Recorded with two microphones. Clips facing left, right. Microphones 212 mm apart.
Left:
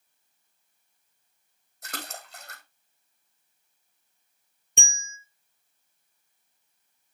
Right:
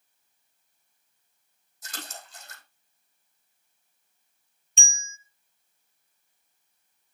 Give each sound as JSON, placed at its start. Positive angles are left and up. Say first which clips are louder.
{"t": 1.8, "sound": "a splash", "louder": "left 3 dB", "side_deg": 65, "distance_m": 3.5}
{"t": 4.8, "sound": "a bell", "louder": "left 4 dB", "side_deg": 60, "distance_m": 1.3}